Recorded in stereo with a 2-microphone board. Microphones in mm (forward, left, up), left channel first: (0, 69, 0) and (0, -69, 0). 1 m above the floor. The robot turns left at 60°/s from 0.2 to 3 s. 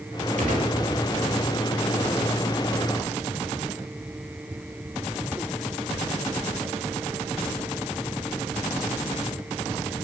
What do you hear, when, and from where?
0.4 s a gunshot: 80° right, 2.5 m